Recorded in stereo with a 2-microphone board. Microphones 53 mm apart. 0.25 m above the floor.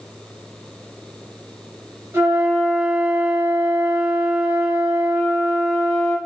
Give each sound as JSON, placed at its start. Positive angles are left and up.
{"t": 2.1, "sound": "a flute", "side_deg": -50, "distance_m": 1.8}